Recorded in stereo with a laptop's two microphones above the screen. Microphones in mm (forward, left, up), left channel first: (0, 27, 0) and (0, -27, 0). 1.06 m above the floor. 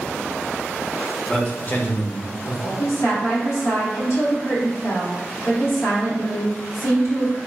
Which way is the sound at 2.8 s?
70° left (ahead or behind).